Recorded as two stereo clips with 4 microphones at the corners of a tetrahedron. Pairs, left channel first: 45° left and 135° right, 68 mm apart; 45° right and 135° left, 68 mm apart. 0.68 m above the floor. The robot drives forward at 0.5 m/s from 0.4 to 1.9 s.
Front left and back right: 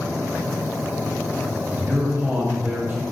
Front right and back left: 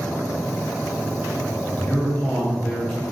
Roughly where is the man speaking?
Right.